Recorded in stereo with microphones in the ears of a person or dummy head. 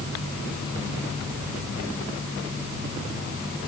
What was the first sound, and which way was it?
Only background noise.